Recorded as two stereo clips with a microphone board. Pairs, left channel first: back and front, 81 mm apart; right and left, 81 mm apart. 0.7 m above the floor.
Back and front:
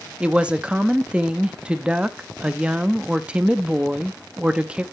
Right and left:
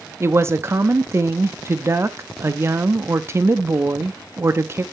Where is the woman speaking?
70° left, 0.6 m.